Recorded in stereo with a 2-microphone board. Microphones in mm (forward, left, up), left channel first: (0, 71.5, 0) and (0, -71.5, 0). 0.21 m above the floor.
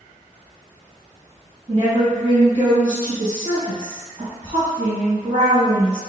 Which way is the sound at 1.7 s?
40° right (ahead or behind).